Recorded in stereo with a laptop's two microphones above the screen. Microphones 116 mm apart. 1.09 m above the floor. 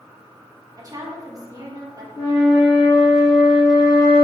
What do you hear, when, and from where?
0.8 s a woman speaking: 35° right (ahead or behind), 0.7 m
2.1 s a flute: 35° left (ahead or behind), 1.3 m